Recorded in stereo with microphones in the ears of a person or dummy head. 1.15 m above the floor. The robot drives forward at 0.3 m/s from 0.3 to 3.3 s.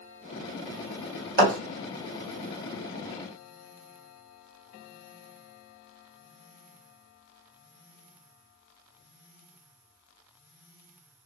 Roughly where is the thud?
Right.